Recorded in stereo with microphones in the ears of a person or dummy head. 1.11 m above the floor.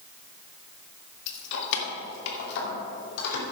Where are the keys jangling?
75° left (ahead or behind), 1.2 m; by 3.4 s 70° left (ahead or behind), 3 m.